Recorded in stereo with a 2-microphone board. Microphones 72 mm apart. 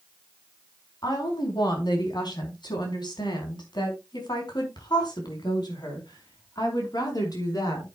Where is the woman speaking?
70° left (ahead or behind), 4.5 m; by 7.9 s 60° left (ahead or behind), 5.5 m.